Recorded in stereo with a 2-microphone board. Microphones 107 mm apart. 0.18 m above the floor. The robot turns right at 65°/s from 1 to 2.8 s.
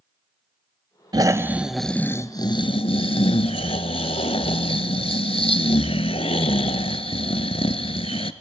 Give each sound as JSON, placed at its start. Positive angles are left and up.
{"t": 1.1, "sound": "snoring", "azimuth_deg": -40, "distance_m": 0.7}